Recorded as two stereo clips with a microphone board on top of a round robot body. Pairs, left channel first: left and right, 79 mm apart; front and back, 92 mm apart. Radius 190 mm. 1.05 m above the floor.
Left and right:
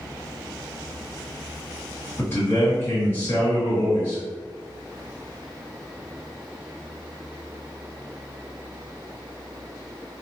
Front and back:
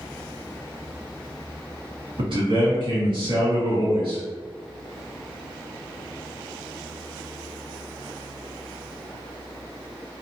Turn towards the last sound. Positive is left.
turn(degrees=155)